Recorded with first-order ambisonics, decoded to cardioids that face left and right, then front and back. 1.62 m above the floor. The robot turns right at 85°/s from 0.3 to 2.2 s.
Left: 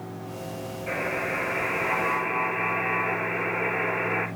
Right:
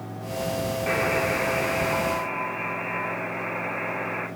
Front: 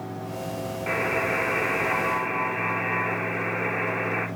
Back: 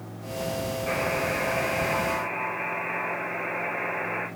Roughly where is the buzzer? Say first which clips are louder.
Right 3 dB, front 3 dB; ahead right.